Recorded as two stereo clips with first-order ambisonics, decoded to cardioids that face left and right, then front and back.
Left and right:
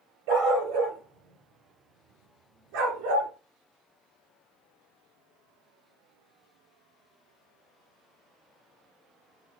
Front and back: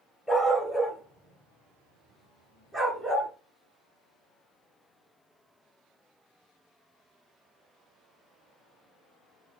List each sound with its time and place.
0.3 s a dog barking: 95° right, 4 m; by 3.3 s 110° right, 2.5 m